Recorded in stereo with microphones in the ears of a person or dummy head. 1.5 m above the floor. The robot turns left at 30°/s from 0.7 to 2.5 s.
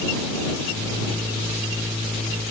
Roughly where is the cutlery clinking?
No cutlery clinking in this recording.